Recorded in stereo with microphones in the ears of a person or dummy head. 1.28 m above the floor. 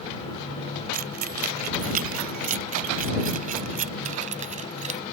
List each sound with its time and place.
0.9 s keys jangling: 50° right (ahead or behind); by 5.0 s 40° right (ahead or behind)